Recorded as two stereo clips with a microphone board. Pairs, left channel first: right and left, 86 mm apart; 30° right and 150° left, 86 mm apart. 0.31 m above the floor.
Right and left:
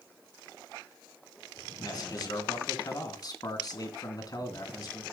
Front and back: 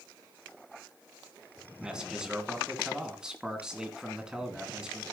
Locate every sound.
1.8 s a man speaking: 130° right, 2.5 m